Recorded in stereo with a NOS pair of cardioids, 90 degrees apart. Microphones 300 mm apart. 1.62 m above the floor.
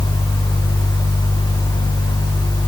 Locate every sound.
0.0 s a fan: 15° left, 1.3 m